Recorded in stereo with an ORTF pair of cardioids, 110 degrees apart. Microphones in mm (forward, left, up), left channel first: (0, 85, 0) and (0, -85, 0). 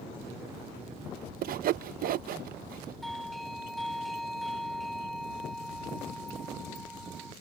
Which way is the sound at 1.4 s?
60° right.